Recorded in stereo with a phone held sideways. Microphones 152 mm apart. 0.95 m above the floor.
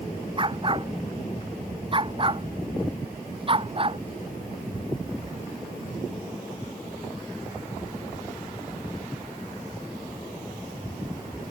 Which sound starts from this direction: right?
A dog barking, at 0.4 s.